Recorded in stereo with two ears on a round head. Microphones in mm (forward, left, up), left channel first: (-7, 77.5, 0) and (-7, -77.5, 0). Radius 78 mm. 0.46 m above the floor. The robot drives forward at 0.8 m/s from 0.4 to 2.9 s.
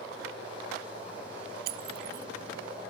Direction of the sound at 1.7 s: 55° right (ahead or behind).